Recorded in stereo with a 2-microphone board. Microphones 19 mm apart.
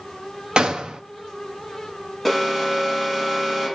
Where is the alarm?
5° right (ahead or behind), 3 m.